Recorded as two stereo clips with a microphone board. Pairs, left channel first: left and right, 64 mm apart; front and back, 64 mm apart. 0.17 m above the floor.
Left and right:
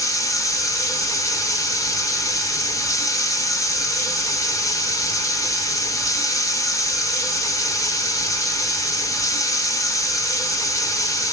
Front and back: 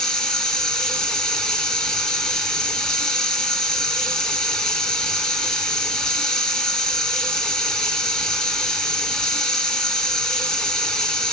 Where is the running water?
80° left, 0.8 m.